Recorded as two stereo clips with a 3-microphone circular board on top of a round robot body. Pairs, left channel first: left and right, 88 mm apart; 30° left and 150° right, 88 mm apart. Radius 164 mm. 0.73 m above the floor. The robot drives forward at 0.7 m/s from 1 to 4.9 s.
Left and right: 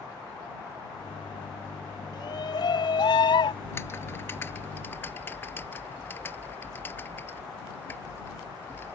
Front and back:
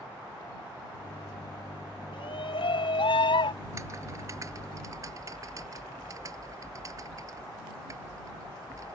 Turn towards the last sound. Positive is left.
turn(degrees=155)